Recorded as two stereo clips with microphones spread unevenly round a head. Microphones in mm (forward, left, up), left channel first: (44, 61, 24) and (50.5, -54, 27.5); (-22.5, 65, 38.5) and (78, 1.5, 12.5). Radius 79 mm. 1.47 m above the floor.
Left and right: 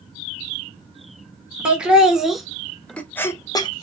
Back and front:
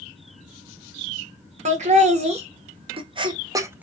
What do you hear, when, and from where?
1.6 s laughter: 5° right, 1.3 m; by 3.9 s 50° left, 0.5 m